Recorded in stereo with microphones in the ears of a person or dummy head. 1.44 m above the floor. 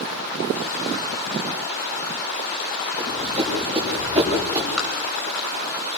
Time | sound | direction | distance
3.0 | running footsteps | 30° right (ahead or behind) | 9 m
4.8 | tapping | centre (ahead or behind) | 5 m